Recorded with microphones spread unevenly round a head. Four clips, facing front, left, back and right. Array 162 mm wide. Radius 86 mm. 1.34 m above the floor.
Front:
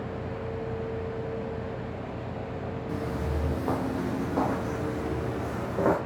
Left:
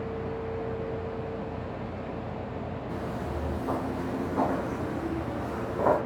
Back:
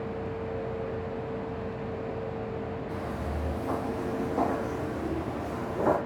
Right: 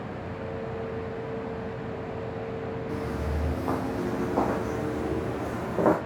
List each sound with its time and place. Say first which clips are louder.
2.9 s footsteps: right 2 dB, front 2 dB; 25° right, 3 m; by 6.0 s 50° right, 4 m